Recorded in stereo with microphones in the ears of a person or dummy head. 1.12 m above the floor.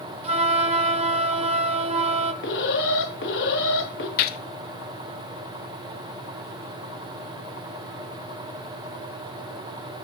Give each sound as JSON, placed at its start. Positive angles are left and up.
{"t": 0.2, "sound": "a flute", "side_deg": -30, "distance_m": 1.6}
{"t": 2.4, "sound": "an alarm", "side_deg": 65, "distance_m": 3.0}
{"t": 4.2, "sound": "a gunshot", "side_deg": 60, "distance_m": 1.1}